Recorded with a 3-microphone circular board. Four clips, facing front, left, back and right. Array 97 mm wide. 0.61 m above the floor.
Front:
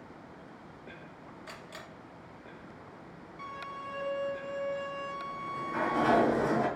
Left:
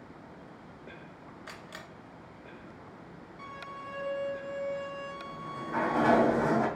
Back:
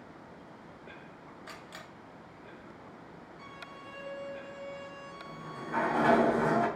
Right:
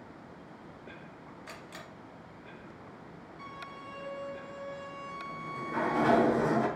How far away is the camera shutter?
About 2 m.